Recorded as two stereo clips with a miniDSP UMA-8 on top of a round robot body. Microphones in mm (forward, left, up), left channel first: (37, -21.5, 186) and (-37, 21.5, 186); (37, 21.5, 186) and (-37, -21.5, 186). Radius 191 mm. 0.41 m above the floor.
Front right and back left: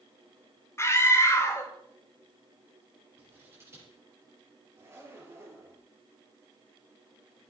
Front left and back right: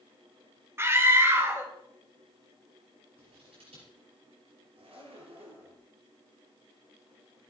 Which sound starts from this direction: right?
A scream, at 0.8 s.